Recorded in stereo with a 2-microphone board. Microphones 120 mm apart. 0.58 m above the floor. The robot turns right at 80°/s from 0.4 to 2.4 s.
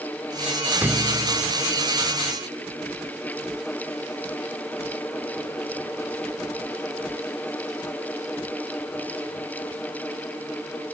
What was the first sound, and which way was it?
A thud, 165° right.